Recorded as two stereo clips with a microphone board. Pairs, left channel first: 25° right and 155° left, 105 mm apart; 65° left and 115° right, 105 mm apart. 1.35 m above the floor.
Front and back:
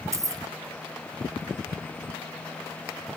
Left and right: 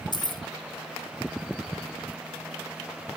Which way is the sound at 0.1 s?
105° left.